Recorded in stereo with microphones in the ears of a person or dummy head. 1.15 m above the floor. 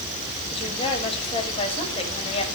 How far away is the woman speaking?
About 6 m.